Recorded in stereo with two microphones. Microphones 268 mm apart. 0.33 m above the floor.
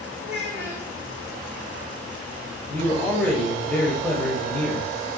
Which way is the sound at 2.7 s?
5° left (ahead or behind).